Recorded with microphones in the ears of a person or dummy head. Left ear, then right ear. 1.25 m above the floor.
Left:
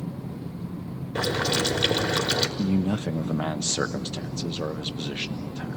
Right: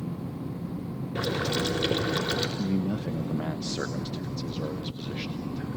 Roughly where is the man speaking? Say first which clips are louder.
Left 3 dB; left.